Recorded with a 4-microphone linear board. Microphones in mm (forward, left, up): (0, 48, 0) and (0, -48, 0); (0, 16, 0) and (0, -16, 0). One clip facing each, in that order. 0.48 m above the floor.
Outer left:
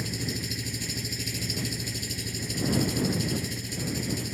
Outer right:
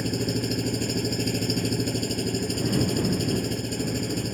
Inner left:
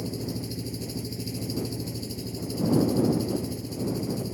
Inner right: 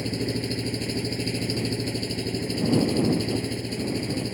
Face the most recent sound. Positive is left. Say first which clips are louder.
# outer right 7 dB, inner right 5 dB
turn(degrees=-50)  # may be behind; listen again after turning